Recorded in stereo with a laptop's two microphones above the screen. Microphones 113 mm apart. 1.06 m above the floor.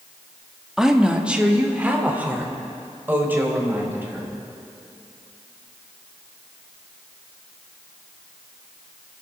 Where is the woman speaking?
5° right (ahead or behind), 1.5 m; by 4.3 s 20° right (ahead or behind), 5 m.